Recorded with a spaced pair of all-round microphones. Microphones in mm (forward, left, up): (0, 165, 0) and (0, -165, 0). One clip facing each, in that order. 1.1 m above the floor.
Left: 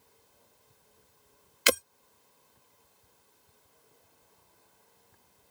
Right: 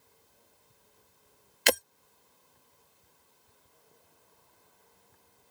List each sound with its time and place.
1.7 s breaking glass: 10° left (ahead or behind)